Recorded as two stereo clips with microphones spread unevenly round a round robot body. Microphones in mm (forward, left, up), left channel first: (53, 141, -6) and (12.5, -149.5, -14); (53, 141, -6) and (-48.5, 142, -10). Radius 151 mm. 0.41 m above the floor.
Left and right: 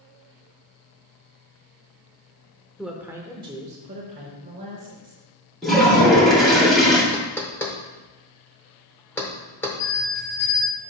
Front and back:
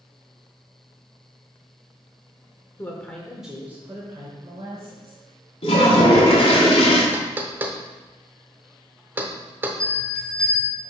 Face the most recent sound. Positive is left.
turn(degrees=80)